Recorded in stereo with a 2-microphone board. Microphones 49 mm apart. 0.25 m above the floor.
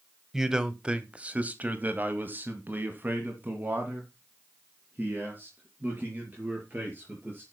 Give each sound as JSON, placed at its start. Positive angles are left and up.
{"t": 0.3, "sound": "a man speaking", "side_deg": -10, "distance_m": 1.3}